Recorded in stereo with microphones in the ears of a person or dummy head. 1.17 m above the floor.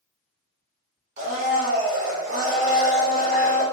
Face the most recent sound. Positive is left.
turn(degrees=-45)  # may be behind; listen again after turning